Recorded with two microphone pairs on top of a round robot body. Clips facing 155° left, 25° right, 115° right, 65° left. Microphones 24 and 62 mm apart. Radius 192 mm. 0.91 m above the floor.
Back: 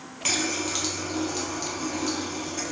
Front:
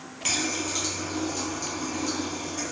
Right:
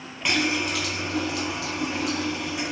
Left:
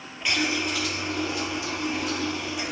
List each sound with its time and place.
0.2 s a running tap: 150° right, 0.6 m